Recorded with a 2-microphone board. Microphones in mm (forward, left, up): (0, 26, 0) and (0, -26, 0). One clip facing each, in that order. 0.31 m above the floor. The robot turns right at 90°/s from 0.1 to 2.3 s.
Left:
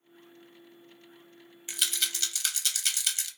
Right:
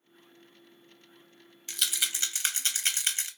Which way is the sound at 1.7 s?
15° left (ahead or behind).